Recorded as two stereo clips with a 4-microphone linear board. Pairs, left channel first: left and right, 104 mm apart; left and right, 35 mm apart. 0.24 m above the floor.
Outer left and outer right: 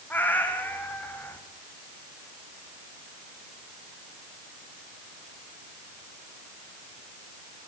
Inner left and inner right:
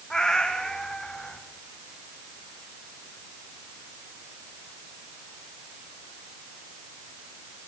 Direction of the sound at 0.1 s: 15° left (ahead or behind).